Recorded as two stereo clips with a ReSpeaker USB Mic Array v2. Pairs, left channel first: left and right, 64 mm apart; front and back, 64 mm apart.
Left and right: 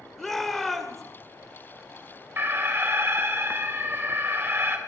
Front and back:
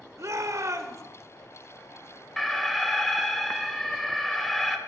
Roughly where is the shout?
Behind.